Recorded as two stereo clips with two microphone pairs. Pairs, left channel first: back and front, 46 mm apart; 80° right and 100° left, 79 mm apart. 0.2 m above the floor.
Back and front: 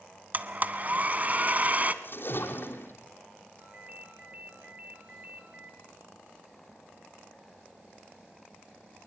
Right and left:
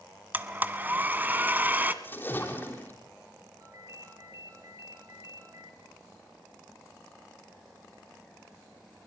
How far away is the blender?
About 1.2 m.